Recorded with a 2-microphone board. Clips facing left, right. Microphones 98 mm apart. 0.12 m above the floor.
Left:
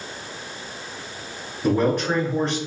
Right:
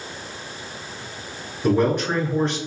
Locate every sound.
1.6 s a man speaking: centre (ahead or behind), 1.4 m